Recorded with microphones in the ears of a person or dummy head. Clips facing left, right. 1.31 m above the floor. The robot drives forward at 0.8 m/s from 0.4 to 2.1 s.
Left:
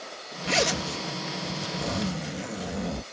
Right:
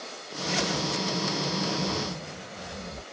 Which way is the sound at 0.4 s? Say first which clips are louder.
Left 2 dB; 70° left (ahead or behind).